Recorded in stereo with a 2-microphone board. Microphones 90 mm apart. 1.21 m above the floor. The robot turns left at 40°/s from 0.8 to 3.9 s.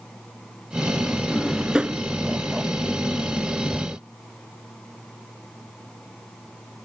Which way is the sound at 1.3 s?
5° left (ahead or behind).